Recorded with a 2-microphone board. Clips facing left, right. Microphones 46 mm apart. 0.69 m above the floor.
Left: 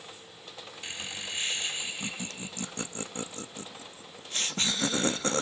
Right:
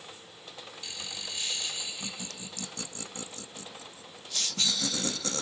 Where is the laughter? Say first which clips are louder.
Left 4 dB; 35° left (ahead or behind), 0.7 m.